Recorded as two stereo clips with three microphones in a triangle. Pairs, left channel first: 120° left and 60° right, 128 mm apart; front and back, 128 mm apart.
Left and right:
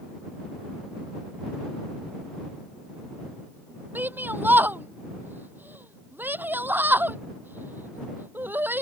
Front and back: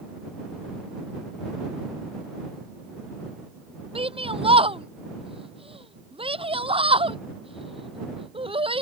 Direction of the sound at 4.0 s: 135° right.